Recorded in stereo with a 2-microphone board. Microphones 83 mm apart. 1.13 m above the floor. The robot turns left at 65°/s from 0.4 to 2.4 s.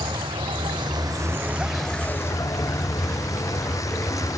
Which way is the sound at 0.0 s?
90° right.